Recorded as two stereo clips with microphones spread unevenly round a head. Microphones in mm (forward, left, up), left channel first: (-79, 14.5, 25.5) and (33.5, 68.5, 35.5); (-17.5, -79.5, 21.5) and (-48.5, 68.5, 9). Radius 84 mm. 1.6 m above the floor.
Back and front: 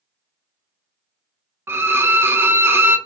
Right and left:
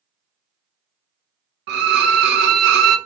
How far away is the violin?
About 0.5 m.